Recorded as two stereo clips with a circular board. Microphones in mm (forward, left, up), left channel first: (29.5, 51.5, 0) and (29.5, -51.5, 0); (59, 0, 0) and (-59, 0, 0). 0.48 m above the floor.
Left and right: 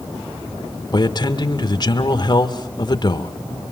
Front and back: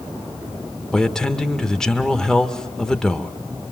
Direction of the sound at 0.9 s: 80° left.